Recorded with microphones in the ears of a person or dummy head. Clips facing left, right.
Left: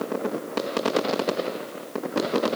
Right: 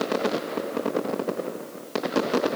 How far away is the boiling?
I don't hear boiling.